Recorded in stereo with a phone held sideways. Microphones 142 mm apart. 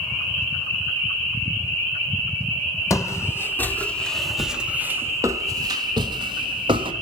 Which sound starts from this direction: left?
Footsteps, at 2.9 s.